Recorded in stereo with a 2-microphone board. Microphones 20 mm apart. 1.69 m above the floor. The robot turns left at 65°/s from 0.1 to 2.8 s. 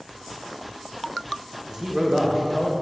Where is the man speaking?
140° right, 1.3 m; by 2.7 s 150° left, 1.3 m.